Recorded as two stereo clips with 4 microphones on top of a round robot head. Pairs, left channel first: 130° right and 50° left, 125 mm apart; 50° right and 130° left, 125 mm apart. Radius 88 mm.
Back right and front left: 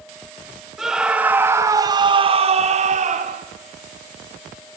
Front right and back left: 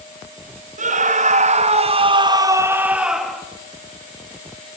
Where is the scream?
135° left, 2 m; by 3.4 s 40° left, 1.9 m.